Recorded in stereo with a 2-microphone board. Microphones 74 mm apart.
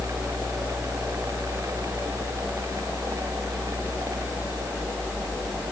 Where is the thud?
No thud in this recording.